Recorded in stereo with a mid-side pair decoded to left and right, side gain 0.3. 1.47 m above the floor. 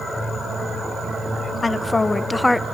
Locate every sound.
1.6 s a woman speaking: 45° left, 1.7 m; by 2.6 s 15° left, 1.1 m